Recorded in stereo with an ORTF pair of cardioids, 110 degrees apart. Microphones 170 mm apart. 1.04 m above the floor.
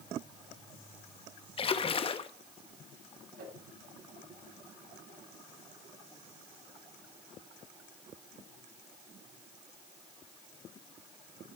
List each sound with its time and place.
1.6 s a splash: 35° left, 1.1 m
3.4 s a whoosh: 55° right, 7.5 m